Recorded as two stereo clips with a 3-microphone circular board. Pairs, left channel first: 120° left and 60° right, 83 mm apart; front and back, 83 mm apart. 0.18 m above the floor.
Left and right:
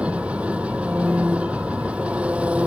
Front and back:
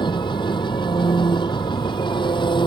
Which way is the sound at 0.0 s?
15° left.